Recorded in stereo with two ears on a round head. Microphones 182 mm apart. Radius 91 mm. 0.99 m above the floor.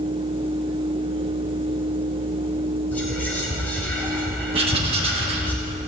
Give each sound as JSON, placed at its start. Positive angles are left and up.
{"t": 2.9, "sound": "whispering", "side_deg": 10, "distance_m": 3.0}
{"t": 4.5, "sound": "writing", "side_deg": -30, "distance_m": 1.2}